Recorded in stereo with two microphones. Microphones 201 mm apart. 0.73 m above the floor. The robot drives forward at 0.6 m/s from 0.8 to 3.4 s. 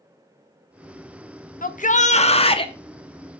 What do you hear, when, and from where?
1.6 s a shout: 45° left (ahead or behind), 0.6 m; by 2.7 s 25° left (ahead or behind), 1.0 m